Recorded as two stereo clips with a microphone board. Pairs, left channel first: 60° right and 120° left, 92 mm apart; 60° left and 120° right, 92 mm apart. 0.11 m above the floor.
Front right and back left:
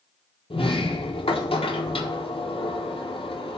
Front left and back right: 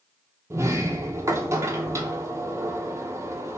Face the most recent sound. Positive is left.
turn(degrees=-60)